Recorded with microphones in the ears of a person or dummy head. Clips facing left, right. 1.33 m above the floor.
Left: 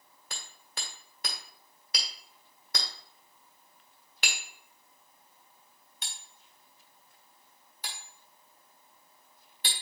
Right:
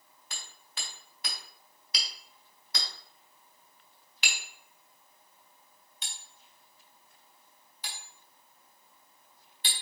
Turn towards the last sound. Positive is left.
turn(degrees=50)  # may be behind; listen again after turning